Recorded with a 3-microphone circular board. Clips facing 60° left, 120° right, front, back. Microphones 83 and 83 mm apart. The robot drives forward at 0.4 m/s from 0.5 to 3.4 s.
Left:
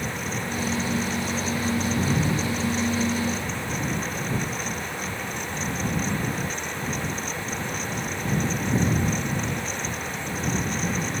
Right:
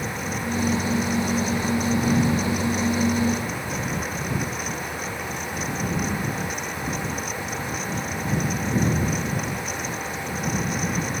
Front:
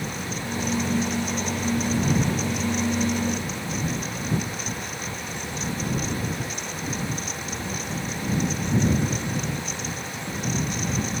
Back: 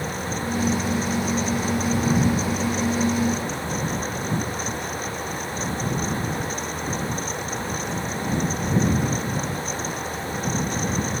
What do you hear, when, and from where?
Only background noise.